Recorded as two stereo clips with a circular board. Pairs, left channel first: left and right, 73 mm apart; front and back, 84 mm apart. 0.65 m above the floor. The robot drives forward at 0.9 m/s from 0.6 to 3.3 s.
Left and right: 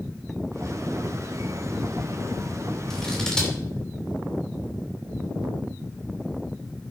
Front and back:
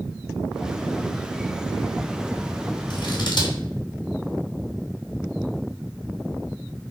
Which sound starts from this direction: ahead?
Scissors, at 2.9 s.